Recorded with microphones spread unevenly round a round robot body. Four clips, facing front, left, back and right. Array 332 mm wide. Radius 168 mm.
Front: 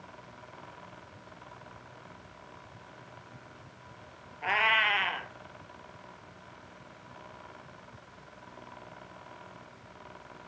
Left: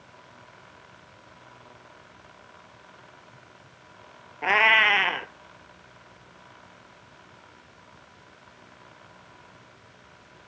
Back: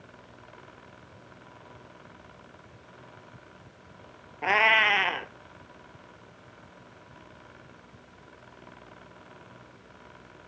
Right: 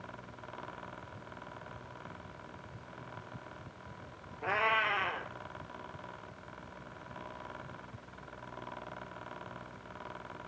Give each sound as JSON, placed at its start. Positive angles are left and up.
{"t": 4.4, "sound": "a cat meowing", "azimuth_deg": 115, "distance_m": 0.8}